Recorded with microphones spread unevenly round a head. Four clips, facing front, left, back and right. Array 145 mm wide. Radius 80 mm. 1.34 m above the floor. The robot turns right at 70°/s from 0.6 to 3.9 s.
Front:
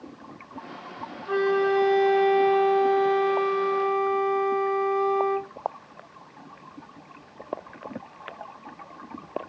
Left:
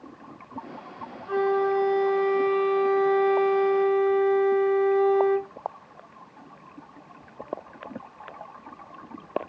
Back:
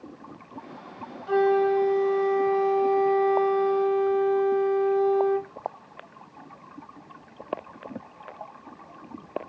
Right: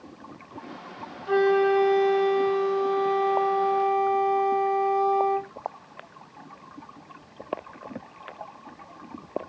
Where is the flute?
90° right, 0.6 m; by 5.5 s 95° left, 0.6 m.